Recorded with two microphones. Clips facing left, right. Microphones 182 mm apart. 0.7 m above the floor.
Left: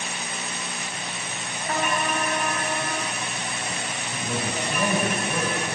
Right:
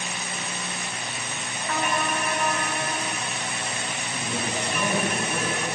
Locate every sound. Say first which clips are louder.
1.7 s a trumpet: left 1 dB; 40° left (ahead or behind), 3 m
4.1 s a man speaking: left 1 dB; 70° left (ahead or behind), 5 m